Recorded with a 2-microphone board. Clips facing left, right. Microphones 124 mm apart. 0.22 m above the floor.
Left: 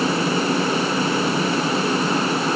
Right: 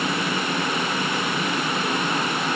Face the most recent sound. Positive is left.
No sound to turn to.